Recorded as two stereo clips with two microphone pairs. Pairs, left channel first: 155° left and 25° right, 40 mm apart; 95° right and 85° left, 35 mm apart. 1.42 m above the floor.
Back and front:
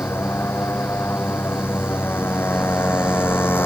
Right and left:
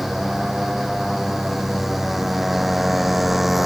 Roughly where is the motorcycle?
Behind.